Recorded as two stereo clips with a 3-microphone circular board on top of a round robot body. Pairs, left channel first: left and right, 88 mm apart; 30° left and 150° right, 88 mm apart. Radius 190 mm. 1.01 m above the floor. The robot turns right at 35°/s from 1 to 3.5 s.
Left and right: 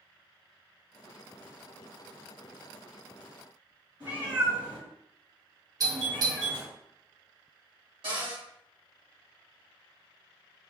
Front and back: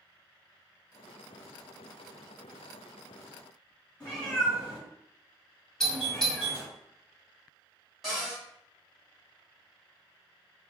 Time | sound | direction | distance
4.0 | a cat meowing | 40° right | 2 m
5.8 | a doorbell | 50° right | 1.7 m
8.0 | a cupboard door | 60° right | 2 m